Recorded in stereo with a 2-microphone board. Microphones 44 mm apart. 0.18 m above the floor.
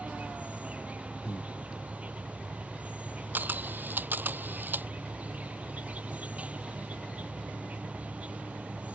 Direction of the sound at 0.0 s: 35° right (ahead or behind).